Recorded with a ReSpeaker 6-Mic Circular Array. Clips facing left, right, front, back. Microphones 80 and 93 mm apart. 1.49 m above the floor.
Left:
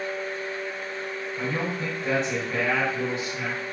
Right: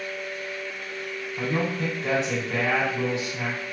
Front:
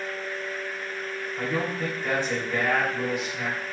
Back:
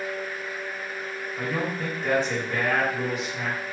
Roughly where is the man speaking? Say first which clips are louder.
Right 3 dB, even; right.